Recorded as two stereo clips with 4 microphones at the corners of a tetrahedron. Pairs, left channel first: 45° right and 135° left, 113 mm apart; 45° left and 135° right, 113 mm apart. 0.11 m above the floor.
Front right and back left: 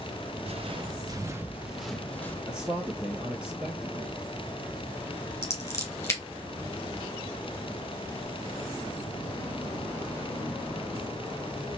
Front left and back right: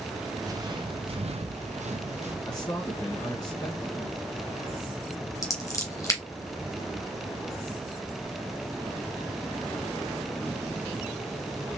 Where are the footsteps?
165° left, 1.2 m; by 2.4 s 120° right, 1.3 m.